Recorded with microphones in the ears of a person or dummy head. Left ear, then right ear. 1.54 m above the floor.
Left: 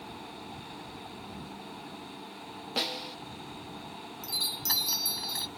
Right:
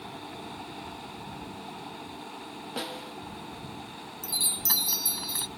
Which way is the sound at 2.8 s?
20° left (ahead or behind).